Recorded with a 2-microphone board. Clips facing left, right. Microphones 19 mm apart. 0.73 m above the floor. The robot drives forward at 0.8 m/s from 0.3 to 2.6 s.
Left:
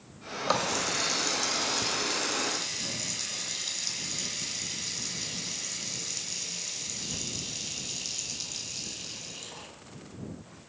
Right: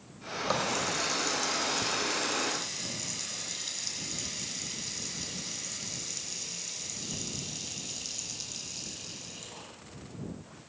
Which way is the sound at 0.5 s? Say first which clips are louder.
Left 2 dB; 30° left (ahead or behind).